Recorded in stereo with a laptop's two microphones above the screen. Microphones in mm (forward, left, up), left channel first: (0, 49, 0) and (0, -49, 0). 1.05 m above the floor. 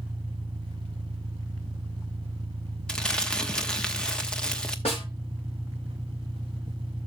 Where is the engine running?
70° right (ahead or behind), 1.9 m.